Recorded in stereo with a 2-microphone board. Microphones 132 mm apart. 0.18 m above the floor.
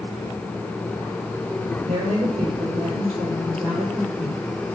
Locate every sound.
1.8 s a woman speaking: 75° right (ahead or behind), 5 m